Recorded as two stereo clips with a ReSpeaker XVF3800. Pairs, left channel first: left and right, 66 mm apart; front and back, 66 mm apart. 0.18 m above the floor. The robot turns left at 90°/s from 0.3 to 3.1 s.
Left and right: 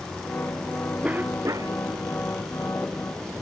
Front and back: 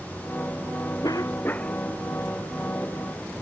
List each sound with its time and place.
1.0 s a cough: 15° right; by 1.8 s 85° right